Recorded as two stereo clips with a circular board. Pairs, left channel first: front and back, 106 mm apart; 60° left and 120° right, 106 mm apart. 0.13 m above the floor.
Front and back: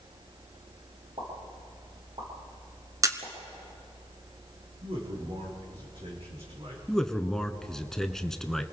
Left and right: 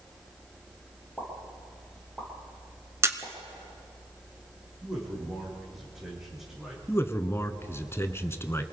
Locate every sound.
1.2 s a pop: 150° left, 9 m
3.0 s a camera shutter: 160° right, 1.4 m
4.8 s a man speaking: 155° left, 7.5 m
6.9 s a man speaking: 80° left, 1.1 m